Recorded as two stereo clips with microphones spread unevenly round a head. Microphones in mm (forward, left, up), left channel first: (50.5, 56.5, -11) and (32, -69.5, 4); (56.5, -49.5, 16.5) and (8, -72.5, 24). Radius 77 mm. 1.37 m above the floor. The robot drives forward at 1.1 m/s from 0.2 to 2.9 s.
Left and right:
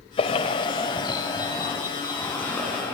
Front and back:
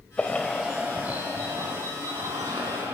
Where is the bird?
100° left, 1.3 m; by 2.9 s 165° left, 3.5 m.